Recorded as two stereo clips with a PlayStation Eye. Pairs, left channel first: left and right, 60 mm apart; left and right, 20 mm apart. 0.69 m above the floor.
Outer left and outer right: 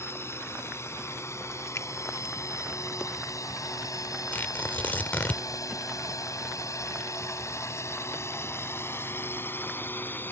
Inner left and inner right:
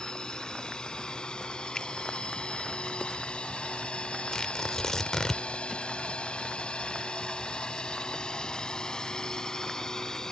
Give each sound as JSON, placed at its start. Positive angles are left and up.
{"t": 0.0, "sound": "a drone", "side_deg": 45}
{"t": 1.8, "sound": "a finger snap", "side_deg": 55}
{"t": 4.3, "sound": "tearing paper", "side_deg": 30}